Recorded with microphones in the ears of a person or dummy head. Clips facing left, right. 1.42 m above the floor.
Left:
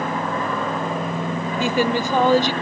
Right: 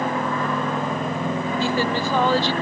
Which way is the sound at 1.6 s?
15° left (ahead or behind).